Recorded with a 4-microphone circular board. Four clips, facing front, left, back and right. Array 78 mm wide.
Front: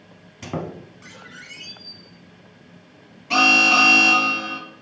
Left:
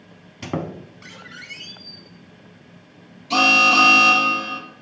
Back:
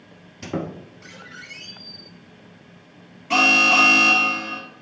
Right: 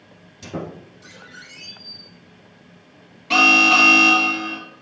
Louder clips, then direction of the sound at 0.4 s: Left 3 dB, back 1 dB; 75° left.